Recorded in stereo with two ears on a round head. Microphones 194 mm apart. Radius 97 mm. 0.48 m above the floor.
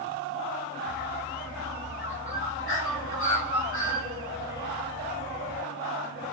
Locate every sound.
0.9 s a bird: 65° left (ahead or behind), 2.5 m